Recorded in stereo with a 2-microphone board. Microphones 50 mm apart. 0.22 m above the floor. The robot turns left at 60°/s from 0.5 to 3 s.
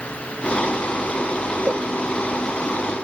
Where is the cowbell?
40° right (ahead or behind); by 1.9 s 50° right (ahead or behind).